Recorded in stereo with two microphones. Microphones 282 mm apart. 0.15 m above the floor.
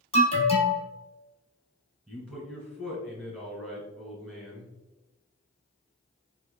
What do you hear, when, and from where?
0.1 s an alarm: 20° left (ahead or behind), 0.7 m
2.1 s a man speaking: 10° right (ahead or behind), 1.3 m